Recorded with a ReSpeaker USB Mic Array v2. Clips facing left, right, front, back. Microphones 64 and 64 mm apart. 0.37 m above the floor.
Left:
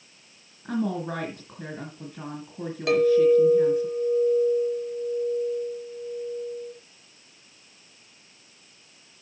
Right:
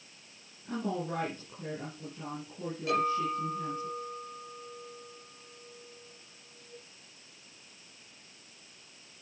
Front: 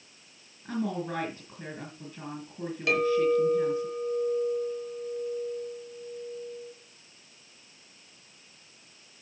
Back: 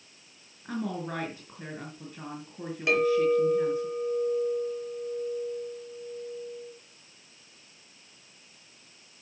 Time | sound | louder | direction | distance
0.7 | a woman speaking | left 6 dB, front 2 dB | 100° left | 4 m
2.9 | a clink | left 12 dB, back 1 dB | 110° left | 5 m